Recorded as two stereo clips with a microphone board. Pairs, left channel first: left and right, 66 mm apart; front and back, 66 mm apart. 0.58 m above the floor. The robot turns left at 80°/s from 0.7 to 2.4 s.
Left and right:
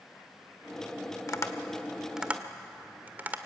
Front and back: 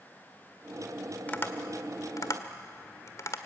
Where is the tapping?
60° left, 1.5 m; by 3.4 s 30° right, 1.5 m.